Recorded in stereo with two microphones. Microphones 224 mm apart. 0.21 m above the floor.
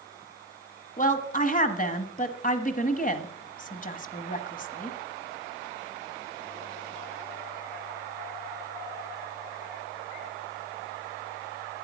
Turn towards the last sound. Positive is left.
turn(degrees=35)  # may be behind; listen again after turning